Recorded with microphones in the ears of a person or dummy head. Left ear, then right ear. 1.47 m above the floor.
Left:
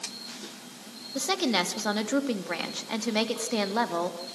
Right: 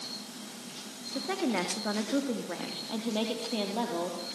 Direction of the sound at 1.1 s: 75° left (ahead or behind).